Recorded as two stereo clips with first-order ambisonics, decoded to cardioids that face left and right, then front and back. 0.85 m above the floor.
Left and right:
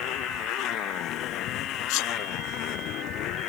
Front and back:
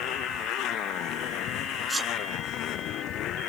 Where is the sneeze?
100° left.